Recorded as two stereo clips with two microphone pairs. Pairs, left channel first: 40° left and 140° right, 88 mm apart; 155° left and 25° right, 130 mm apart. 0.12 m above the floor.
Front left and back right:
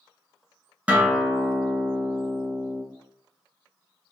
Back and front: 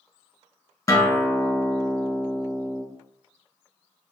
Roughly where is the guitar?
Behind.